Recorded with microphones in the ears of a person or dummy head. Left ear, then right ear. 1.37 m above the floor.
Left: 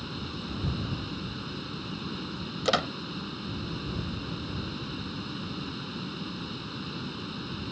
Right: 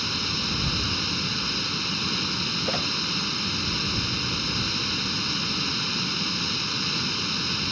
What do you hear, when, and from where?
0.0 s running water: 70° right (ahead or behind)
2.6 s a squeak: 45° left (ahead or behind)